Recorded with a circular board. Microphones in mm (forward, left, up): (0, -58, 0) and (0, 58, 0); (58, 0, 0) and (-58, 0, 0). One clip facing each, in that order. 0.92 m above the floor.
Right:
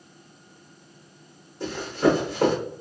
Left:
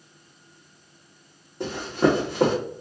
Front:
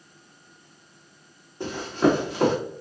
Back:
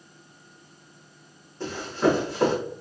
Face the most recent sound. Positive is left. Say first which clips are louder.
# even, front 2 dB
turn(degrees=75)